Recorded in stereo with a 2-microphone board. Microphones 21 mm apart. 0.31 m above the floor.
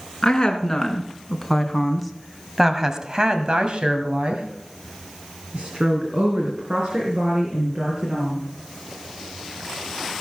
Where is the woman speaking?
20° left (ahead or behind), 3.5 m; by 8.5 s 55° right (ahead or behind), 6 m.